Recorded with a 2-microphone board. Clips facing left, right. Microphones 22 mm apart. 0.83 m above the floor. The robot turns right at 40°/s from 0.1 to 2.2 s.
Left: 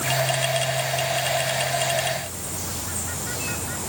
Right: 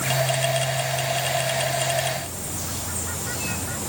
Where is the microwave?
No microwave in this recording.